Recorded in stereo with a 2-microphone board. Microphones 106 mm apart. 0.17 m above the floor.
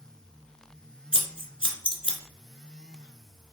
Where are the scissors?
55° left (ahead or behind), 1.0 m.